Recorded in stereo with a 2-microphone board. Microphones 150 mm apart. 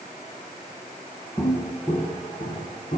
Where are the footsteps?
20° left (ahead or behind), 1.0 m; by 3.0 s 50° left (ahead or behind), 2.5 m.